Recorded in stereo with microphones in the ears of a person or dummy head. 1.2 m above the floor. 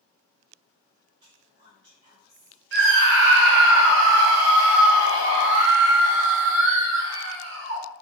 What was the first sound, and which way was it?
Whispering, 45° right (ahead or behind).